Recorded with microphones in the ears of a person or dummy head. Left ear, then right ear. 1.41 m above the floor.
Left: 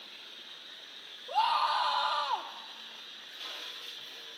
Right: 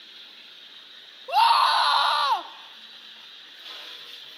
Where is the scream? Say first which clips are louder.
Right 9 dB; 60° right (ahead or behind), 0.5 m.